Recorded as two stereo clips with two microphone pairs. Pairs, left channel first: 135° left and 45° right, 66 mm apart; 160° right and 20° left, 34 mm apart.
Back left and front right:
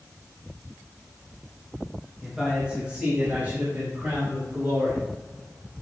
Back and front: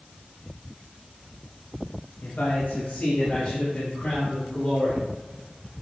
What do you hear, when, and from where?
2.2 s a man speaking: 130° right, 1.3 m; by 5.8 s 100° right, 4 m